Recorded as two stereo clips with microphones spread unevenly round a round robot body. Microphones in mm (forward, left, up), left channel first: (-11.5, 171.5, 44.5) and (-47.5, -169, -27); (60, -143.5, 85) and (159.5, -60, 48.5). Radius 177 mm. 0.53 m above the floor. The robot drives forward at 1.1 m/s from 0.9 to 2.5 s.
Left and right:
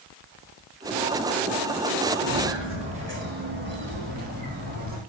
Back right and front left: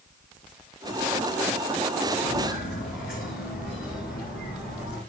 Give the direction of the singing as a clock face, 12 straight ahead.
I don't hear singing.